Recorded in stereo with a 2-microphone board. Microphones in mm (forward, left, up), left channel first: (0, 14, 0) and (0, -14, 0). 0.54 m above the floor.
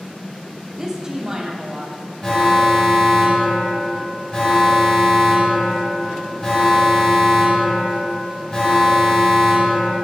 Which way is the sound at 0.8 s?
20° right (ahead or behind).